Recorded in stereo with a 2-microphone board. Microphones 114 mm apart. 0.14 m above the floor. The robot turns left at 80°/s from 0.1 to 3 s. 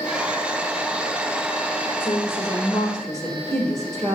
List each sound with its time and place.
2.0 s a woman speaking: 85° left, 3 m; by 4.2 s 5° left, 3 m